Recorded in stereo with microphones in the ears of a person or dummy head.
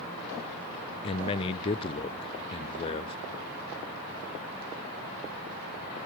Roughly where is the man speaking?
Left.